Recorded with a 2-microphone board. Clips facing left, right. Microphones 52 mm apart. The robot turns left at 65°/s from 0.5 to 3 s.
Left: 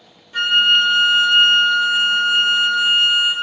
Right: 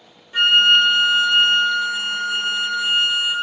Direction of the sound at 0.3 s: 160° right.